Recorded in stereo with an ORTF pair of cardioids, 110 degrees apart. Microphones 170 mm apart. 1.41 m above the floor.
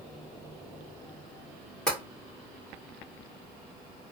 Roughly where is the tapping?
Ahead.